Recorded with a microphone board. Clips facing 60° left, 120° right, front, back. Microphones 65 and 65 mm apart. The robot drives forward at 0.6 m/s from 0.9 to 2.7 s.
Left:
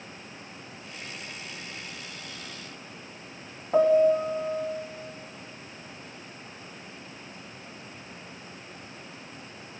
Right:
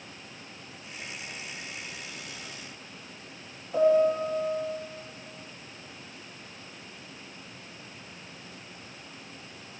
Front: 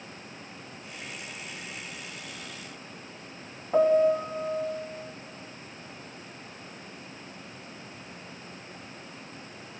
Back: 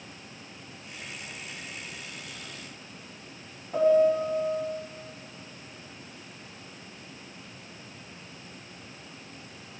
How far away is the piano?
About 0.7 m.